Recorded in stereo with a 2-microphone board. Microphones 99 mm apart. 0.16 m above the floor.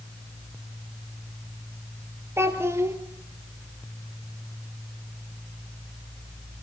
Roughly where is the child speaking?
Right.